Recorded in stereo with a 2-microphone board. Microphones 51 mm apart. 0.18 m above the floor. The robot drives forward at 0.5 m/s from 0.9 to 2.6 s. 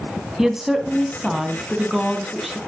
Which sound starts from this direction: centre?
A woman speaking, at 0.4 s.